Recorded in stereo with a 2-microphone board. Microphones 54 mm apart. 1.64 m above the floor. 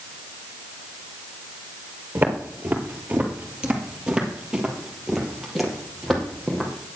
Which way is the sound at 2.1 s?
35° right (ahead or behind).